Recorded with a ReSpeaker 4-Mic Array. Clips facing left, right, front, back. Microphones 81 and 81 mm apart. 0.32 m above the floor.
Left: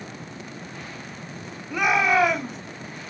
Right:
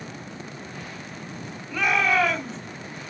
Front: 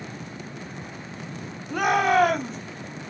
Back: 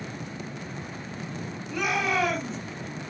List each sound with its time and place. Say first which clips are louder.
1.7 s a shout: left 2 dB, front 7 dB; 15° left, 1.9 m